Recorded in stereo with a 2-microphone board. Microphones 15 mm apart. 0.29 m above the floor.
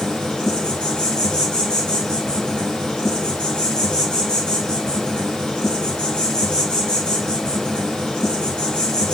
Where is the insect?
70° left (ahead or behind), 5.5 m.